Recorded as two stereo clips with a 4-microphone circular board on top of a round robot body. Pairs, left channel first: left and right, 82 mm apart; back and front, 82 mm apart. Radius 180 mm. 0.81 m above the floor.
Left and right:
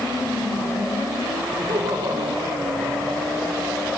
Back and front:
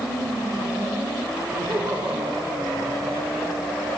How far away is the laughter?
About 4 m.